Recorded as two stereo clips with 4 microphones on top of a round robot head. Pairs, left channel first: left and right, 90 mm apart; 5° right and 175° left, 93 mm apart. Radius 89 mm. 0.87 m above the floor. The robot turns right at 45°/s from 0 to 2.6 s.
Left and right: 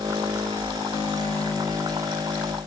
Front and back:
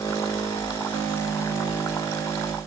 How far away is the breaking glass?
No breaking glass in this recording.